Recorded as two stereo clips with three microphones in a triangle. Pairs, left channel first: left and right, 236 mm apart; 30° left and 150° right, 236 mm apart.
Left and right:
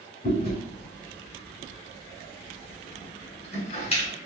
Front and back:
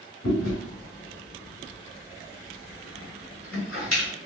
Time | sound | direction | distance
0.2 | chewing | 30° left | 2 m